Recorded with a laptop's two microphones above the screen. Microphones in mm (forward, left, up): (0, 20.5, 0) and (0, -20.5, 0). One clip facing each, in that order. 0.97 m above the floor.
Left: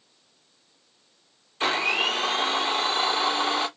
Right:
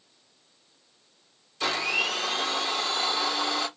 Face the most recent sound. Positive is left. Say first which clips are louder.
# left 3 dB
turn(degrees=35)  # may be behind; listen again after turning